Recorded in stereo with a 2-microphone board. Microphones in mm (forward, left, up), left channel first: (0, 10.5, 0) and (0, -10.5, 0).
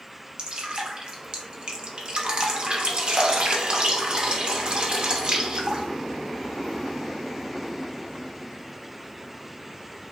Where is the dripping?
45° right (ahead or behind), 0.5 m.